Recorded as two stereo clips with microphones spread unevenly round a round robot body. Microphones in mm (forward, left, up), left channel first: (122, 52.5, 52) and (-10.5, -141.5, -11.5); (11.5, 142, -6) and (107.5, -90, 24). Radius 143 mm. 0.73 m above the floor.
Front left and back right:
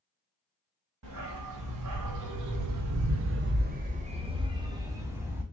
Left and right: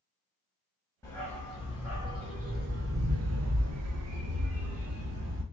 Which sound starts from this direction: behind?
A dog barking, at 1.0 s.